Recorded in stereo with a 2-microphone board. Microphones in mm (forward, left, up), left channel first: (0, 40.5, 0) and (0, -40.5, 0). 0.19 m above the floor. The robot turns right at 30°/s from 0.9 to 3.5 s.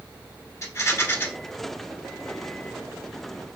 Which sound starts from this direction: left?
A rattle, at 0.6 s.